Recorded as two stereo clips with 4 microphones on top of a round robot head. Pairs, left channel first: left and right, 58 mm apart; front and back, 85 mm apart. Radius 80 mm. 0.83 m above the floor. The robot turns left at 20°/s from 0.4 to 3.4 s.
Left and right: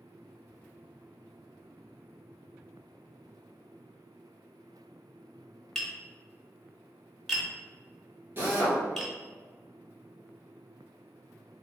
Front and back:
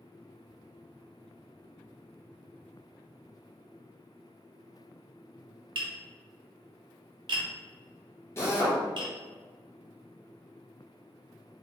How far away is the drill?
About 1.2 m.